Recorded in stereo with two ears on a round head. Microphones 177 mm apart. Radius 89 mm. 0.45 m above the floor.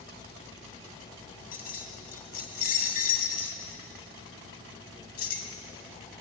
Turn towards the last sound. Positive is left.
turn(degrees=50)  # may be behind; listen again after turning